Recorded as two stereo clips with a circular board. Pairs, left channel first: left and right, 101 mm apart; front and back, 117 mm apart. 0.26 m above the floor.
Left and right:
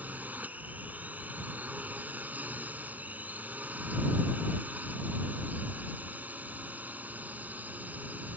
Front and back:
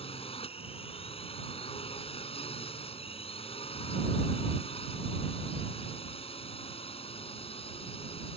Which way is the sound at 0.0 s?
20° right.